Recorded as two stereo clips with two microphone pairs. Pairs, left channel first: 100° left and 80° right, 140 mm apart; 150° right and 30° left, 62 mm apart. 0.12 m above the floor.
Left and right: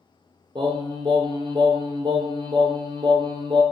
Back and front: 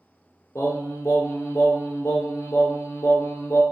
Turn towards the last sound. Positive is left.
turn(degrees=-135)